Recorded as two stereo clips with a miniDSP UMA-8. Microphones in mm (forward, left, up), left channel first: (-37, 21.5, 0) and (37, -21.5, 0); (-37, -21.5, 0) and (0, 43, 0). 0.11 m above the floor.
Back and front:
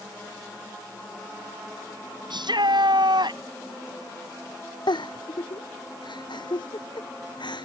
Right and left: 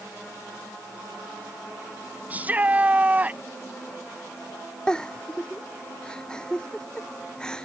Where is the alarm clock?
No alarm clock in this recording.